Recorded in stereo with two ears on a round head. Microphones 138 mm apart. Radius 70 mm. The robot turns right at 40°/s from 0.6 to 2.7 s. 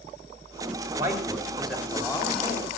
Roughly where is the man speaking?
Ahead right.